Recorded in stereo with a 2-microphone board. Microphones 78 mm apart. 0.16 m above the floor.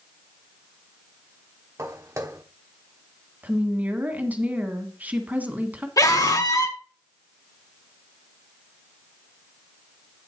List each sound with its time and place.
1.8 s footsteps: 40° right (ahead or behind), 1.3 m
3.4 s a woman speaking: 20° right (ahead or behind), 1.5 m
6.0 s a scream: 50° left (ahead or behind), 2 m